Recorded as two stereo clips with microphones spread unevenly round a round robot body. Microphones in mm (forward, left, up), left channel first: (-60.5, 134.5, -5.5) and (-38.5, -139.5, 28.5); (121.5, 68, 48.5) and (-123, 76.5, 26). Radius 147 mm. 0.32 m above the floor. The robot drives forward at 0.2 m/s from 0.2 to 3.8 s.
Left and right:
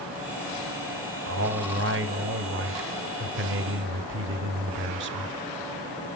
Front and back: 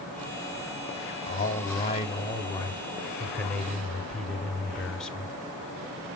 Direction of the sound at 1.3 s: 50° right.